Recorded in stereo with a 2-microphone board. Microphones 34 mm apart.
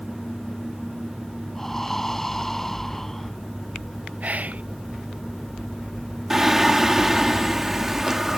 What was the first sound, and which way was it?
Breathing, 10° left (ahead or behind).